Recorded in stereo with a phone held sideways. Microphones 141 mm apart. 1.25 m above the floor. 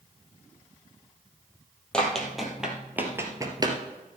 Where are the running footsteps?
5° left (ahead or behind), 2.5 m; by 3.8 s 35° right (ahead or behind), 1.7 m.